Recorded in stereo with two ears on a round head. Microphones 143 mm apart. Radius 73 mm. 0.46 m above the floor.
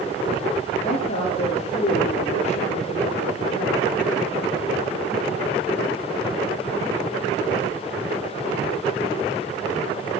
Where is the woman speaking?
45° left (ahead or behind), 7 m.